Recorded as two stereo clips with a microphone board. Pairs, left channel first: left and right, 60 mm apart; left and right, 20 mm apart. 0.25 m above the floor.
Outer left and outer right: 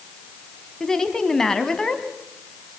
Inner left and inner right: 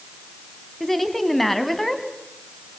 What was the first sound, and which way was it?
A woman speaking, 10° left (ahead or behind).